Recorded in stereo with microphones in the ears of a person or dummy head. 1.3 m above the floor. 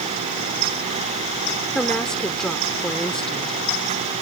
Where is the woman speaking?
5° left (ahead or behind).